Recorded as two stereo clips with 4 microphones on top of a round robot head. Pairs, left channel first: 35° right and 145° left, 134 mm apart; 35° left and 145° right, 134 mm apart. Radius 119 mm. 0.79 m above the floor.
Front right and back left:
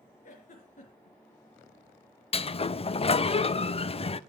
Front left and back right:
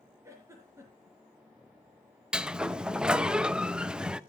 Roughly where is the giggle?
Right.